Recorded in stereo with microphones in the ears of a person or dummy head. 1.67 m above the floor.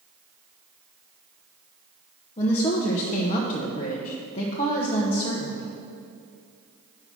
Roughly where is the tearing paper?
No tearing paper in this recording.